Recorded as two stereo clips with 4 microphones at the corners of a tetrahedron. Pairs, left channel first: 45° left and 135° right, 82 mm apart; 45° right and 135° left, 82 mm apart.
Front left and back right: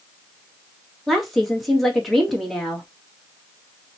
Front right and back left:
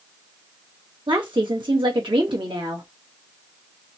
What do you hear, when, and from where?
1.1 s a woman speaking: 135° left, 2.5 m